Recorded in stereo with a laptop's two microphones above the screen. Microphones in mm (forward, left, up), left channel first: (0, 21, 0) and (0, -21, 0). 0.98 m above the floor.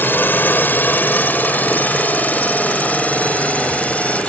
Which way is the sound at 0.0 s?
55° left (ahead or behind).